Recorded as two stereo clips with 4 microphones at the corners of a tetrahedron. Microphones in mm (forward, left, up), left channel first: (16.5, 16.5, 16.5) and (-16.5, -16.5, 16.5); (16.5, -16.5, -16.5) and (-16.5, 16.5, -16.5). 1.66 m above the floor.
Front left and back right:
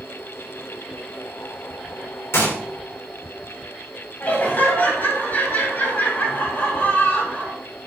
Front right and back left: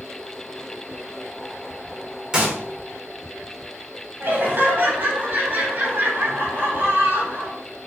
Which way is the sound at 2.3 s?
65° left.